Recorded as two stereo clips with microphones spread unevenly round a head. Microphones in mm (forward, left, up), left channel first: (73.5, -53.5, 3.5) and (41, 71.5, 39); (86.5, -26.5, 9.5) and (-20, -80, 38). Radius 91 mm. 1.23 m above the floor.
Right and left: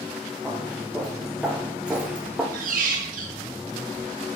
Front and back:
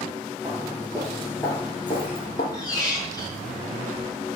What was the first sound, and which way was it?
Footsteps, 170° left.